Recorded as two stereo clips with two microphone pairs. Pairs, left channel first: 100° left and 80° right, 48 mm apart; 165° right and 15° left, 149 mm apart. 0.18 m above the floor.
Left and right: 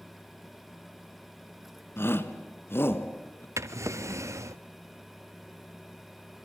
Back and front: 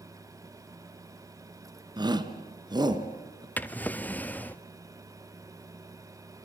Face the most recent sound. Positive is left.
turn(degrees=-85)